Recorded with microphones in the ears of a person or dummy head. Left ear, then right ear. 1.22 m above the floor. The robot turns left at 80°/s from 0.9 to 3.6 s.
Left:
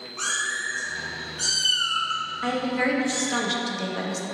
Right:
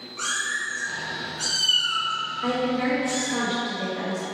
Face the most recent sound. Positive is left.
turn(degrees=35)